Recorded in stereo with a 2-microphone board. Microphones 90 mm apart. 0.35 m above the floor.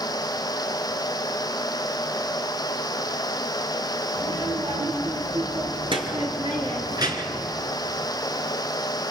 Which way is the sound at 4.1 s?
85° right.